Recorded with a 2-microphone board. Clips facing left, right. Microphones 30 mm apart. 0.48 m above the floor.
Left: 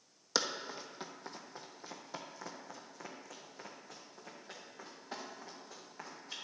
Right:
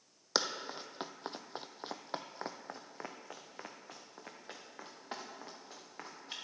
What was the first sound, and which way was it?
Running footsteps, 20° right (ahead or behind).